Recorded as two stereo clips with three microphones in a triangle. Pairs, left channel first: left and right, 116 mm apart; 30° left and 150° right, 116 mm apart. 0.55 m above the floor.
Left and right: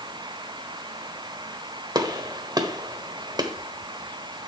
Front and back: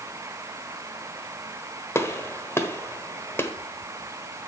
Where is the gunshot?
40° right, 1.1 m.